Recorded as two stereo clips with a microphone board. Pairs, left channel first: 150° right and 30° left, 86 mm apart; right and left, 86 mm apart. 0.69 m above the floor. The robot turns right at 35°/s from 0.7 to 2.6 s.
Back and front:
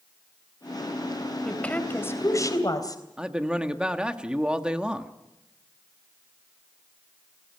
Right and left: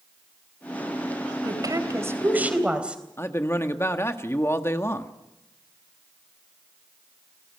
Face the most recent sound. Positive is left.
turn(degrees=-45)